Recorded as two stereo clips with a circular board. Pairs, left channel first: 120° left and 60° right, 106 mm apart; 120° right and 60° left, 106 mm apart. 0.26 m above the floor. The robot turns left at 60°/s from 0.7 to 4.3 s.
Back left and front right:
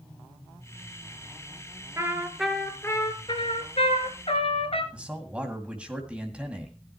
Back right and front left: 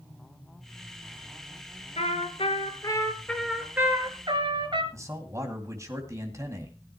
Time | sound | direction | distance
2.0 | a trumpet | 120° right | 1.8 m
4.9 | a man speaking | 15° left | 2 m